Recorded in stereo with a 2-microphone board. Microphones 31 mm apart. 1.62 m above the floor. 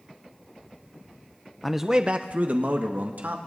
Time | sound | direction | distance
1.6 | a man speaking | 5° left (ahead or behind) | 0.7 m